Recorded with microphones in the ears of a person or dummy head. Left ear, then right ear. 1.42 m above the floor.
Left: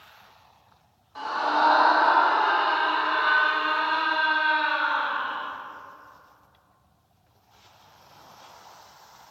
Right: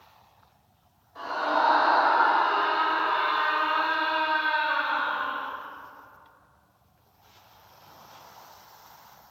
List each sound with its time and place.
1.1 s a scream: 55° left (ahead or behind), 2 m; by 5.5 s 80° left, 4.5 m